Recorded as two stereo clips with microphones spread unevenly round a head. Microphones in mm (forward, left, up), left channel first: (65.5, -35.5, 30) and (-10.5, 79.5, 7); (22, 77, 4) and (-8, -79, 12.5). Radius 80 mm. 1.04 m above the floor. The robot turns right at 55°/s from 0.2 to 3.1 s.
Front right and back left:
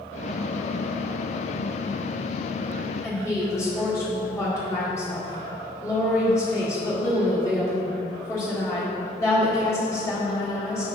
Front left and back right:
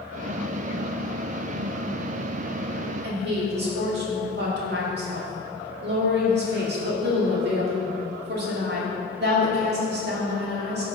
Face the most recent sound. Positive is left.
turn(degrees=-130)